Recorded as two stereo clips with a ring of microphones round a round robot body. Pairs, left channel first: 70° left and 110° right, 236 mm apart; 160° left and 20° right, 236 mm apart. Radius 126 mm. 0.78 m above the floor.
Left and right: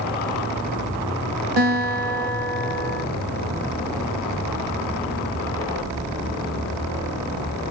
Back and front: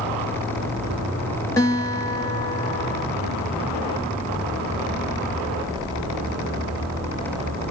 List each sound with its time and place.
1.6 s a guitar: 125° right, 1.6 m